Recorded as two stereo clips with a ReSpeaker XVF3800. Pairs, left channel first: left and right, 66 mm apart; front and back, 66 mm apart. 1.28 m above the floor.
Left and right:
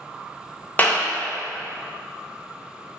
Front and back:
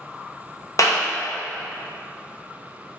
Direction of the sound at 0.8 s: 25° left.